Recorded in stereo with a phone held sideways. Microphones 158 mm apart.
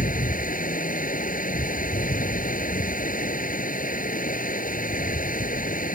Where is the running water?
60° left (ahead or behind).